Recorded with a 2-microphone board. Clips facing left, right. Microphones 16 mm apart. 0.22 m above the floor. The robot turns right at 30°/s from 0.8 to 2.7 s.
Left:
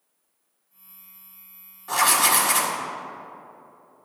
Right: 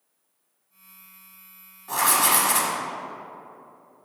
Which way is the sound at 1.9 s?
15° left (ahead or behind).